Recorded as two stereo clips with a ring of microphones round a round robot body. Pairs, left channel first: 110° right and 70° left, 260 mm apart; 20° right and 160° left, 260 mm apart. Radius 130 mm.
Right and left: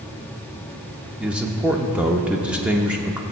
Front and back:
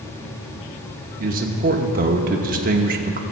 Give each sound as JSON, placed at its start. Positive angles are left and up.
{"t": 1.2, "sound": "a man speaking", "azimuth_deg": 150, "distance_m": 0.8}